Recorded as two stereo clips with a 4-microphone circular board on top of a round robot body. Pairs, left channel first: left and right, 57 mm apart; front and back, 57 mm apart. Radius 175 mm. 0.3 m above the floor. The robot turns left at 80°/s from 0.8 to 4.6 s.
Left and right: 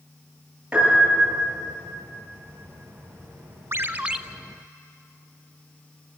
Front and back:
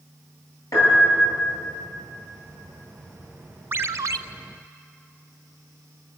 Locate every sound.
0.7 s a piano: 15° right, 10 m; by 1.5 s 70° right, 10 m
3.7 s a ringtone: 130° right, 0.8 m; by 4.2 s 170° right, 0.8 m